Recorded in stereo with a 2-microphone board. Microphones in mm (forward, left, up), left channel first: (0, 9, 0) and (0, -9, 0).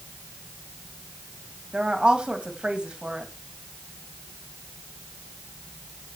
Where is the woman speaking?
75° right (ahead or behind), 2.5 m.